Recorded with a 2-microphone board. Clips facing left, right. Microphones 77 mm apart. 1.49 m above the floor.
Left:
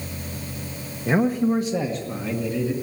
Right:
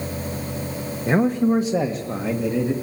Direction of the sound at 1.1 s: 5° right (ahead or behind).